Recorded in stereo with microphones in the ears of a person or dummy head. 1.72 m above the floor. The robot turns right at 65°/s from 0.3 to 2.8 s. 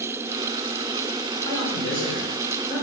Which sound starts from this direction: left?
A man speaking, at 1.4 s.